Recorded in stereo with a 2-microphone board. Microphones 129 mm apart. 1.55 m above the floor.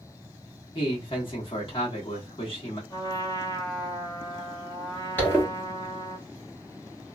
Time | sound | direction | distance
0.8 | a man speaking | 50° left (ahead or behind) | 1.4 m
2.9 | a trumpet | 35° left (ahead or behind) | 0.8 m
5.2 | a zipper | 15° left (ahead or behind) | 1.2 m